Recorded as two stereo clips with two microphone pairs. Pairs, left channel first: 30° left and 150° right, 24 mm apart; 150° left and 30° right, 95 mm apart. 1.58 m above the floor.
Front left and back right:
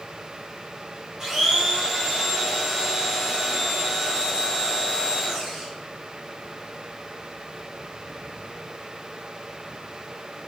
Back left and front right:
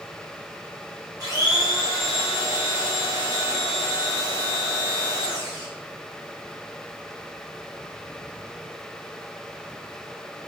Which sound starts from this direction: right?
A blender, at 1.2 s.